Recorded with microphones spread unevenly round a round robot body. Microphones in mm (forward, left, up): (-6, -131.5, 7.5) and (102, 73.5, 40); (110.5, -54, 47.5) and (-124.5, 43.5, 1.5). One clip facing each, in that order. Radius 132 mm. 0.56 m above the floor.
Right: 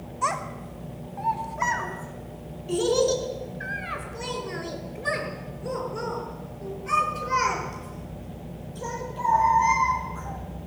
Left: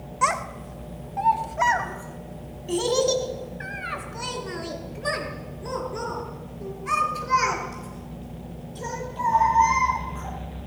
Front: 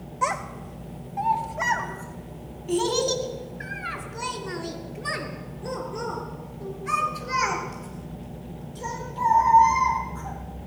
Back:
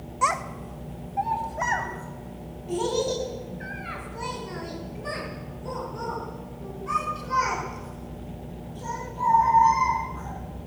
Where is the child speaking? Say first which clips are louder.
Left 3 dB, even; 85° left, 2 m; by 10.4 s 30° left, 13.5 m.